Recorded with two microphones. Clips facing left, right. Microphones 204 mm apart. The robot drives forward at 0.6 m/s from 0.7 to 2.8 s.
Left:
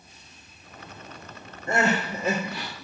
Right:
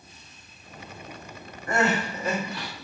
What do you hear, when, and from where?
1.7 s crying: 25° left (ahead or behind), 3 m; by 2.7 s 20° left (ahead or behind), 3.5 m